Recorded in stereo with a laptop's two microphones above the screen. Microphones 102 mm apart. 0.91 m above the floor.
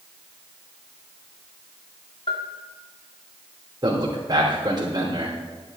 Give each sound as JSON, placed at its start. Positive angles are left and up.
{"t": 2.3, "sound": "a bell", "side_deg": 65, "distance_m": 1.7}
{"t": 3.8, "sound": "a man speaking", "side_deg": -45, "distance_m": 3.0}